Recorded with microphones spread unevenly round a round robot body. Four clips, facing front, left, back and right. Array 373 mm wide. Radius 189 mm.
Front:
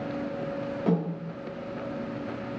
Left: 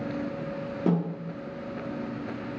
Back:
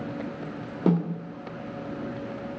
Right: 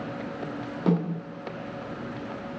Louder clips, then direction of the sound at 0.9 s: Right 1 dB, back 4 dB; 165° left.